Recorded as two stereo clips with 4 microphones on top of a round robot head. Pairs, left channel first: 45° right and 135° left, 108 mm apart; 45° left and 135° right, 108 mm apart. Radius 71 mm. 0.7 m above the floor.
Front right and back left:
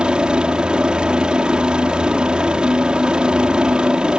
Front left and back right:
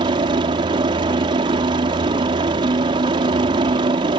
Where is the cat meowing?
No cat meowing in this recording.